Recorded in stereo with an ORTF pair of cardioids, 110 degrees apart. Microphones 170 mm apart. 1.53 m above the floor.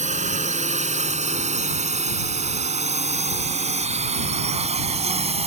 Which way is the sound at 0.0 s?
50° right.